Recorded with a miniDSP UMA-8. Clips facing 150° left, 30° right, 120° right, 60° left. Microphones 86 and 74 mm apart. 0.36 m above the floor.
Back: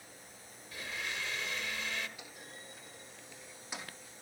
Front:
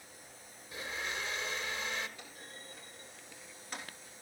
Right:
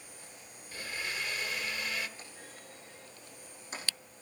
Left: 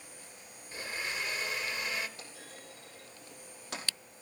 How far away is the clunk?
About 3.5 m.